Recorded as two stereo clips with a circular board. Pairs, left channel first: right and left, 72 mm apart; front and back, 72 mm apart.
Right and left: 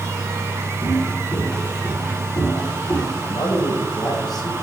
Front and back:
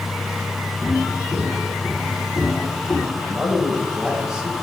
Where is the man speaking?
95° right, 2.5 m.